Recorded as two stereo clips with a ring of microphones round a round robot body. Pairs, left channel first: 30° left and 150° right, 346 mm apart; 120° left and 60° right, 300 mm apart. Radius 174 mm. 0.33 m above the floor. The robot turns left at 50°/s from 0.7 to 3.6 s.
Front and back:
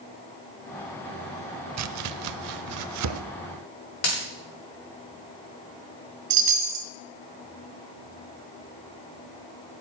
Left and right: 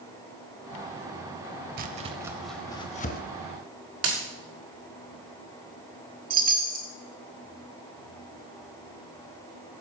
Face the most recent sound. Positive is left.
turn(degrees=-125)